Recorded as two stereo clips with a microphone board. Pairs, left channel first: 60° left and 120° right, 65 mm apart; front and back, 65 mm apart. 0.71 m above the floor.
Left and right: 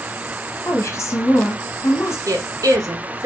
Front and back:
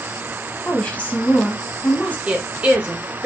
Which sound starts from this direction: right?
A woman speaking, at 2.3 s.